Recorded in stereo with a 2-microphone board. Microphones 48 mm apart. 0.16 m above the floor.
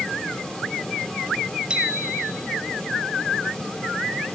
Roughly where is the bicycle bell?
Centre.